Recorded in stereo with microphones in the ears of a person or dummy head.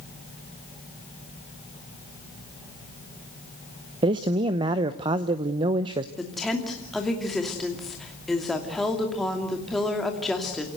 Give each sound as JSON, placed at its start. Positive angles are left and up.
{"t": 4.0, "sound": "a man speaking", "side_deg": -25, "distance_m": 0.8}
{"t": 6.2, "sound": "a woman speaking", "side_deg": 0, "distance_m": 2.5}